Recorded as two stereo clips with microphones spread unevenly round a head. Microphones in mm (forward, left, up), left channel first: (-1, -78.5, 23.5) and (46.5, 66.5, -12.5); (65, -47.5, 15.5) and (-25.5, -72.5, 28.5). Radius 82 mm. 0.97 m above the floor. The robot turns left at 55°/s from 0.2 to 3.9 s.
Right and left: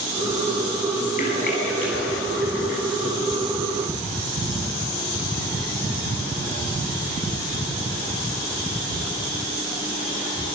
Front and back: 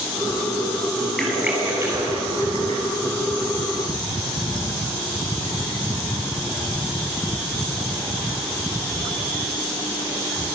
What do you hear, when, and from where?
1.2 s a splash: 75° right, 9 m; by 2.8 s 165° right, 9 m